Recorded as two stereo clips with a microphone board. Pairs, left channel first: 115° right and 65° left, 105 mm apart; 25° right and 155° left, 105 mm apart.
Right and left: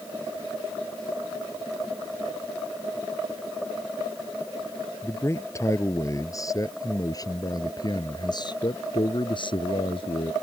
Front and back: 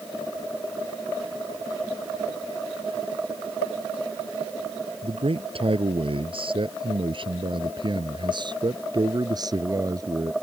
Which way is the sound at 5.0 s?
175° right.